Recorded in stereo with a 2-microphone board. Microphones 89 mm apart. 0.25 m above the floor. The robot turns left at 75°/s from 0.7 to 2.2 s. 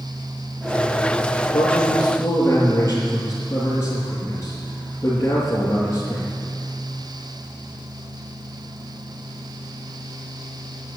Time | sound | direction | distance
1.5 | a man speaking | 75° left | 4 m